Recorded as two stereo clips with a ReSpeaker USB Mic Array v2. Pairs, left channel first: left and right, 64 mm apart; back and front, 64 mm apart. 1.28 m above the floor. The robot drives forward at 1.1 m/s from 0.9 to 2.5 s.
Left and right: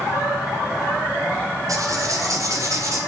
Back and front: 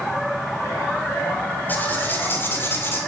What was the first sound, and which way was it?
Writing, 115° right.